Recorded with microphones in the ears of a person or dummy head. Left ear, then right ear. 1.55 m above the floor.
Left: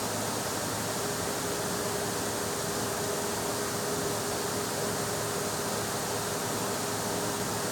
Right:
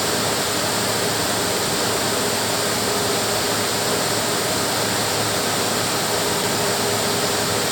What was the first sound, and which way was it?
Only background noise.